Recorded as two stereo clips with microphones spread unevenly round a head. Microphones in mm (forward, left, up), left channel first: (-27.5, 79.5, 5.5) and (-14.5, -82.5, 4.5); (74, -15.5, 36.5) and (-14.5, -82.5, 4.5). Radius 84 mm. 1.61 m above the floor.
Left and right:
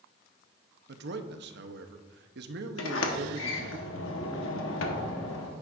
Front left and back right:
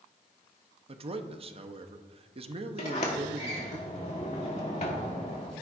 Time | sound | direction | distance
0.9 | a man speaking | 100° right | 0.8 m
2.8 | a sliding door | 90° left | 1.2 m